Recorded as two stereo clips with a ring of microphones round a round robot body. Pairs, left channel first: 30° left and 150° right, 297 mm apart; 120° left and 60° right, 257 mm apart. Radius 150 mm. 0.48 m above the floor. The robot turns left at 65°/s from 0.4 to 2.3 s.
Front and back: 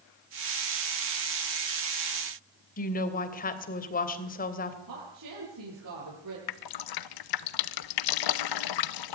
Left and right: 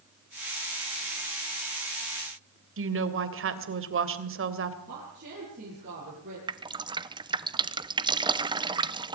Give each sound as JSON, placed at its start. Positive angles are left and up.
{"t": 2.8, "sound": "a woman speaking", "azimuth_deg": -30, "distance_m": 3.0}
{"t": 4.9, "sound": "a woman speaking", "azimuth_deg": -120, "distance_m": 8.5}
{"t": 6.5, "sound": "dripping", "azimuth_deg": 15, "distance_m": 0.9}